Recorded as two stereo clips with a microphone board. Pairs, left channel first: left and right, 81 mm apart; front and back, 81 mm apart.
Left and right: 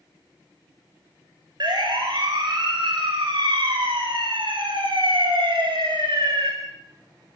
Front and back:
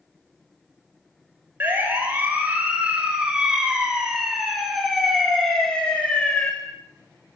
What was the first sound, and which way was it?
A siren, 115° right.